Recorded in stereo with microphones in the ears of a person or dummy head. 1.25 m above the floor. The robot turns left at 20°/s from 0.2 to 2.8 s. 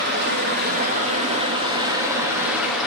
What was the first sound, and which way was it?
Running water, 125° right.